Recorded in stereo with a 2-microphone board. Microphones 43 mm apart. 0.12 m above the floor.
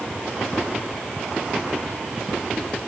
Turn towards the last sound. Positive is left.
No sound to turn to.